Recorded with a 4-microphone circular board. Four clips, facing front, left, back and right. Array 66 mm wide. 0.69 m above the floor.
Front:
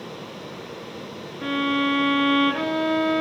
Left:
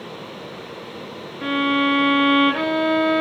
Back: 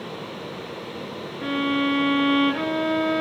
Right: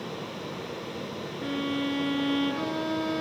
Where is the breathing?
I don't hear breathing.